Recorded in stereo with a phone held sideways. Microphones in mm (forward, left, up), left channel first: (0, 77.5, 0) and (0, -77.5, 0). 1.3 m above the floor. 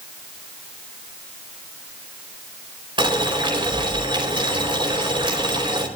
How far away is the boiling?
About 4 m.